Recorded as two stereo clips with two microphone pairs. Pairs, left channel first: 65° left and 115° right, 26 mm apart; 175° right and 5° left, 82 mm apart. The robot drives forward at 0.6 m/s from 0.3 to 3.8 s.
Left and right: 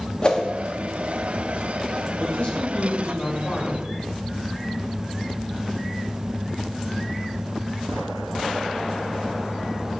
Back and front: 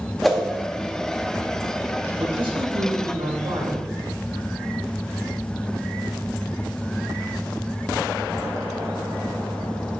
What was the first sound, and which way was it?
A whoosh, 100° left.